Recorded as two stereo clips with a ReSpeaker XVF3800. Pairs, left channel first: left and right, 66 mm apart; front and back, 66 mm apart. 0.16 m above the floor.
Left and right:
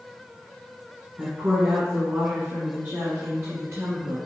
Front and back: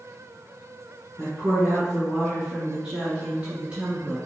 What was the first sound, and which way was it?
A woman speaking, 60° right.